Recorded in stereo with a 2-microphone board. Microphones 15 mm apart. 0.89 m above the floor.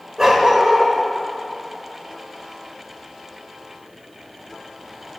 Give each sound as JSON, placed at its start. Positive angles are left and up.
{"t": 0.2, "sound": "a dog barking", "side_deg": -45, "distance_m": 1.3}